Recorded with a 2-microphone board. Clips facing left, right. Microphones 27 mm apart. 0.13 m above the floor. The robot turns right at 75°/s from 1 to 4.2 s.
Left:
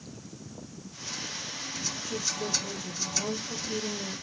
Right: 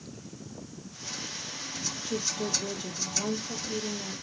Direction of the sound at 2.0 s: 150° right.